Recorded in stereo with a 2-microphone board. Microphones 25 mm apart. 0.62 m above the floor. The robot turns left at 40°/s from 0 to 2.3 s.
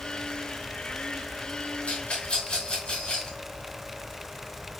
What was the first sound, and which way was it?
A rattle, 45° left (ahead or behind).